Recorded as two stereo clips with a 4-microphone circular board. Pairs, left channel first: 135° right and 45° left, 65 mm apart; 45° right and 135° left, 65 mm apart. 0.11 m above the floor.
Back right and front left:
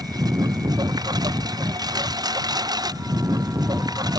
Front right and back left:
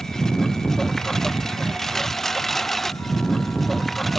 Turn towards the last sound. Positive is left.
turn(degrees=45)